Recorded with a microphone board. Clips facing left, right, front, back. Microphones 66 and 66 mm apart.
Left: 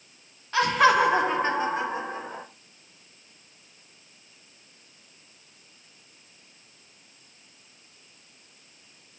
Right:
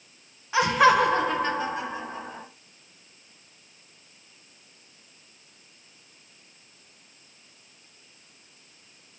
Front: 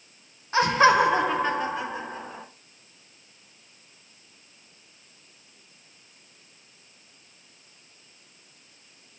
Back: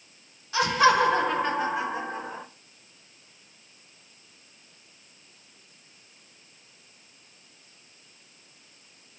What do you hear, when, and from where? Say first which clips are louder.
0.5 s laughter: right 1 dB, front 2 dB; 20° right, 0.6 m; by 2.4 s 125° left, 0.8 m